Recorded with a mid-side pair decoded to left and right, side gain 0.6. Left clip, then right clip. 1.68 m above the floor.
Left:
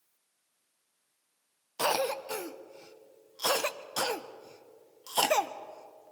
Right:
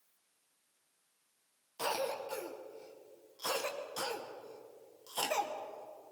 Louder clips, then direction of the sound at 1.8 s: Left 7 dB; 45° left.